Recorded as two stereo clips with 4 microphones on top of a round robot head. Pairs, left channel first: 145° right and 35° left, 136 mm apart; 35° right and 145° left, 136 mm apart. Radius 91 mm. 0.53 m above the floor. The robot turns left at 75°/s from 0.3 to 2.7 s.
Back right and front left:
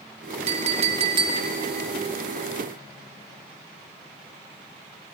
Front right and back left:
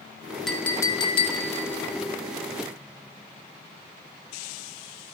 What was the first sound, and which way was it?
A clink, 50° left.